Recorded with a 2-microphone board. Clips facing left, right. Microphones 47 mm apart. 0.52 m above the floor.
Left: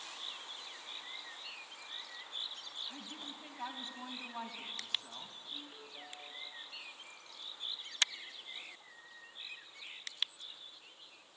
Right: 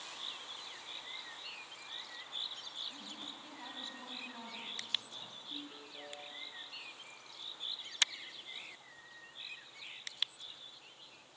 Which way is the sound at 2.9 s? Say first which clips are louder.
Left 1 dB; 30° left (ahead or behind).